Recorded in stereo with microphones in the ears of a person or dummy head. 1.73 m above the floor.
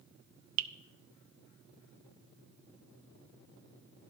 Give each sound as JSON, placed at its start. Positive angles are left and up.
{"t": 0.6, "sound": "dripping", "side_deg": -75, "distance_m": 0.6}